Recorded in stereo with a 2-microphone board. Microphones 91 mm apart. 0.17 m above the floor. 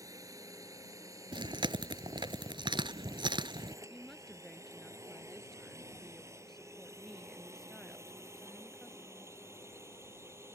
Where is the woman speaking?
5° left (ahead or behind).